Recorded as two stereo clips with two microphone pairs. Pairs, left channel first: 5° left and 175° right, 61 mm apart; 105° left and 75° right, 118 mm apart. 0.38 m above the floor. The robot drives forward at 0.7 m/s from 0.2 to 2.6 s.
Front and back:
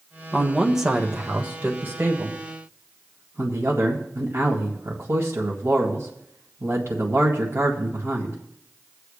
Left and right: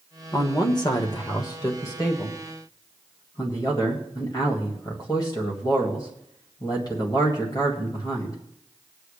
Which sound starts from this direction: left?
A man speaking, at 0.3 s.